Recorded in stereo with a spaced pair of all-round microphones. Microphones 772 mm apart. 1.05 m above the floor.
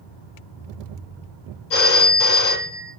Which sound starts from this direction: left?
A phone ringing, at 1.7 s.